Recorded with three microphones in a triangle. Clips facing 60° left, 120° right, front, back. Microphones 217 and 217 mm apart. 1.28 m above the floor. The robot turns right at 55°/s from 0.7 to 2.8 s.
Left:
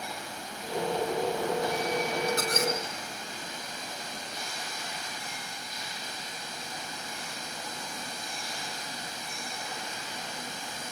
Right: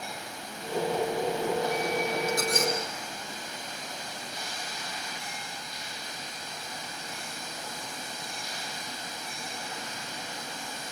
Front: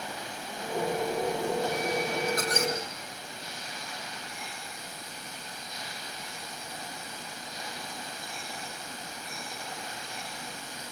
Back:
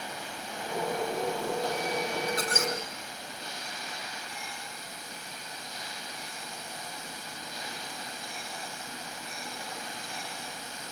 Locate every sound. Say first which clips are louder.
2.3 s a squeak: right 1 dB, front 2 dB; 35° left, 3.5 m; by 2.7 s 60° left, 3.5 m